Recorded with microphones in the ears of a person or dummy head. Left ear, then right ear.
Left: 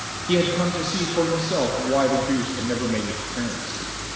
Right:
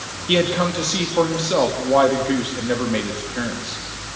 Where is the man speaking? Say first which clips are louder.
Right 3 dB; 35° right (ahead or behind), 3 m.